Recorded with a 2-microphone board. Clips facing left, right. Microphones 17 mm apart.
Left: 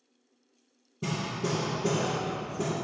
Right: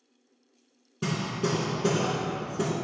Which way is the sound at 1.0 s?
75° right (ahead or behind).